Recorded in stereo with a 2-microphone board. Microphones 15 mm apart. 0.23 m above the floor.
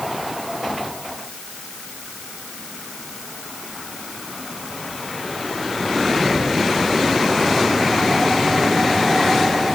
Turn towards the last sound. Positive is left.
No sound to turn to.